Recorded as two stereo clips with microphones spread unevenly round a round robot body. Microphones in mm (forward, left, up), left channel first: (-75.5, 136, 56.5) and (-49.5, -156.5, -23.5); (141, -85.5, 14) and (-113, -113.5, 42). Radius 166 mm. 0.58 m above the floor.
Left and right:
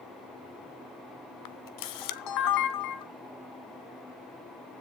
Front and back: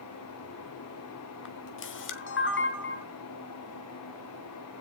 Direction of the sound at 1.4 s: 60° left.